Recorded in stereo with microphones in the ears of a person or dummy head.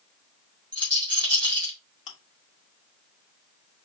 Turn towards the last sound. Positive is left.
turn(degrees=40)  # may be behind; listen again after turning